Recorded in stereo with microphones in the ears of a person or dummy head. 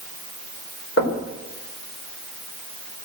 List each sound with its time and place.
1.0 s knocking: 75° left (ahead or behind), 4.5 m